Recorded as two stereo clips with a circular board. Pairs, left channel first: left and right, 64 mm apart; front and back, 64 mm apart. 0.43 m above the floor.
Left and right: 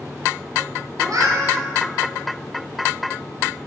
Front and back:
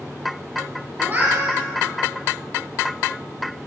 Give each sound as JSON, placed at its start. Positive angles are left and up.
{"t": 1.0, "sound": "a cat meowing", "azimuth_deg": -120, "distance_m": 2.5}